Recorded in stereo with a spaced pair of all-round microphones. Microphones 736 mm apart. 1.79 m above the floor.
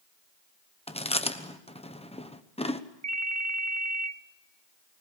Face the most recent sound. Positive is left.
turn(degrees=-25)  # may be behind; listen again after turning